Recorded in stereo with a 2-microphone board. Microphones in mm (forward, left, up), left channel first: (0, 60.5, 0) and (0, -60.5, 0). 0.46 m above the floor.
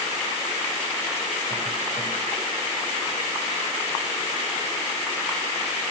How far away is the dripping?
I don't hear dripping.